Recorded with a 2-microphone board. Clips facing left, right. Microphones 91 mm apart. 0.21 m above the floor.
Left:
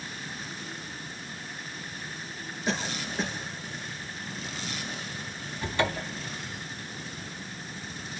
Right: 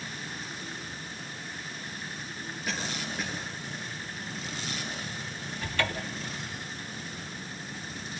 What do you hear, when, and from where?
2.7 s a cough: 30° left (ahead or behind), 5.5 m
5.6 s a cupboard door: 20° left (ahead or behind), 1.2 m